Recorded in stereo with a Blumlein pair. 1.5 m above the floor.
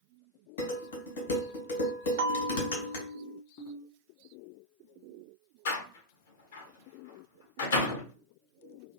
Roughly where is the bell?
Ahead right.